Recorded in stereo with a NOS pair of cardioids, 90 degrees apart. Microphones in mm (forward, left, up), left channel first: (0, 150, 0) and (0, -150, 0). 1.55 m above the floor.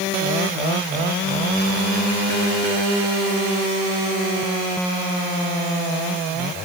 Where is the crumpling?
I don't hear crumpling.